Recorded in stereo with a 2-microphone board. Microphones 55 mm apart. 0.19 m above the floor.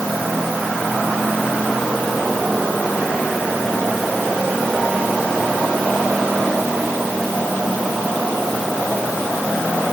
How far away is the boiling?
No boiling in this recording.